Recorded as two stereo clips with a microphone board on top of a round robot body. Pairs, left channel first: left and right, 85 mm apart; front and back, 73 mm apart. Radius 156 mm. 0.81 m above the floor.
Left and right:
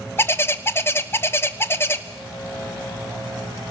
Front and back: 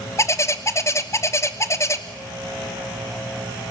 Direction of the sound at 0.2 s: 40° left.